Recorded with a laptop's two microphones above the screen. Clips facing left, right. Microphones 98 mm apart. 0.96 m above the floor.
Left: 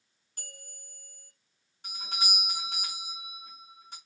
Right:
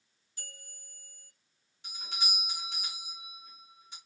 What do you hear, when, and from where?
0.4 s a bell: 50° left (ahead or behind), 2 m
1.8 s a doorbell: 45° left (ahead or behind), 2.5 m